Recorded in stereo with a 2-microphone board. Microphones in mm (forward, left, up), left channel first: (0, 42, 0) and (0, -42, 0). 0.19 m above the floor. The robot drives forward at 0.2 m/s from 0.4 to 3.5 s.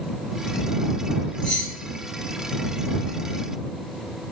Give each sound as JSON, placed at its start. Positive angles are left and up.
{"t": 1.4, "sound": "keys jangling", "side_deg": 15, "distance_m": 0.8}